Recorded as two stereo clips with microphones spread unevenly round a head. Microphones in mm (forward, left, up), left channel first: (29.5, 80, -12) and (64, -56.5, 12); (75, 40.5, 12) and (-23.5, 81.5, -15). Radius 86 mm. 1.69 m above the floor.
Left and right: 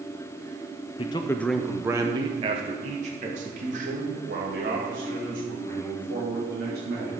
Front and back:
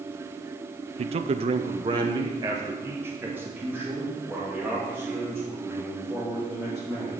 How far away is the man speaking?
About 0.5 m.